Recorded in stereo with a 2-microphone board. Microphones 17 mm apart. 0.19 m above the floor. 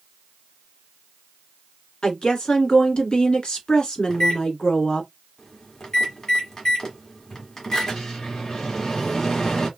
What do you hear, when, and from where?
2.0 s a woman speaking: 60° left (ahead or behind), 1.8 m
4.1 s a microwave: 35° left (ahead or behind), 1.6 m